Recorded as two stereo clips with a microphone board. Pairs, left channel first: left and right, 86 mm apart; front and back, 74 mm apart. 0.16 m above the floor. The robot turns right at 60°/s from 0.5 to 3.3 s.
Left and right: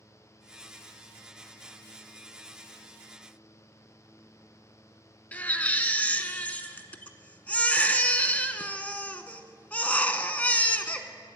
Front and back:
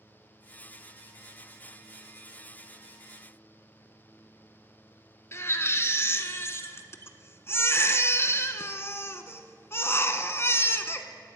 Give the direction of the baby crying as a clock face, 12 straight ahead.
11 o'clock.